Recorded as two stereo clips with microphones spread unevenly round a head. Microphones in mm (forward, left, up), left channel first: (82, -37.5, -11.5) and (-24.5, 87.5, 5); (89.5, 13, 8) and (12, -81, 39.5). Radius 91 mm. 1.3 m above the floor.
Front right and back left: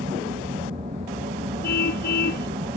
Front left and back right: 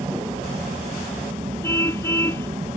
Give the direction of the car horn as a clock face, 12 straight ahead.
1 o'clock.